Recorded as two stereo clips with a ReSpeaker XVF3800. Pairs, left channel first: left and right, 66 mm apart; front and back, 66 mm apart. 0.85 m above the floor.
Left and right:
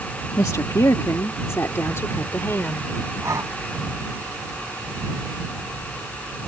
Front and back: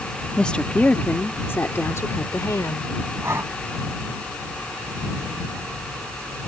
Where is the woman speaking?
75° left; by 2.9 s 35° left.